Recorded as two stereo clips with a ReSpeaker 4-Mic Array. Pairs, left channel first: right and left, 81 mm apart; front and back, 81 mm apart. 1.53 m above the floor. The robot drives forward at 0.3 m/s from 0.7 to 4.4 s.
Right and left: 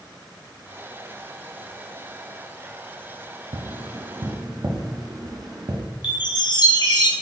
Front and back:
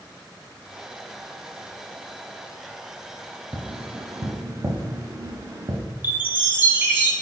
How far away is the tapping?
About 0.5 m.